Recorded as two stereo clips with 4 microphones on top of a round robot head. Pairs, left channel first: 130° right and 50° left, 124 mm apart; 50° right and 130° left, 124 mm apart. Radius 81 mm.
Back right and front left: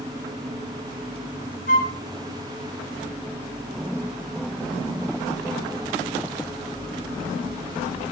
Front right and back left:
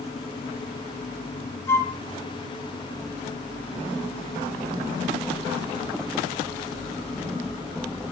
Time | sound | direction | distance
1.7 | a flute | 120° right | 1.3 m